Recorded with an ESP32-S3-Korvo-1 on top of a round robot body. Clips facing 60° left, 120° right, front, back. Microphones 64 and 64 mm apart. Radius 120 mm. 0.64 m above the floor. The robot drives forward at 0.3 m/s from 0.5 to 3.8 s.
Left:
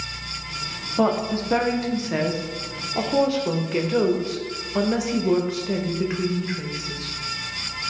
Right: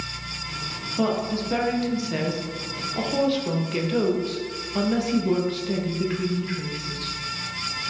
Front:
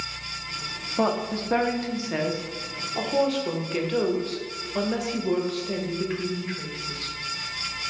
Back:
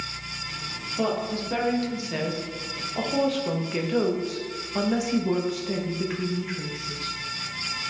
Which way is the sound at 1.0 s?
25° left.